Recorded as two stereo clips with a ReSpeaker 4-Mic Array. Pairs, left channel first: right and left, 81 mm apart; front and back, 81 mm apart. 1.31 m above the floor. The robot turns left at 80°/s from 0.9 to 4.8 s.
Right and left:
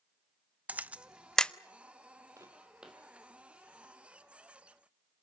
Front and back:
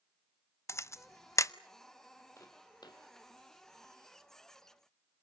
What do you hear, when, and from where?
0.7 s a camera shutter: 30° left, 0.5 m; by 1.5 s 20° right, 0.5 m
2.4 s footsteps: 50° left, 2.5 m; by 3.0 s 5° right, 2.5 m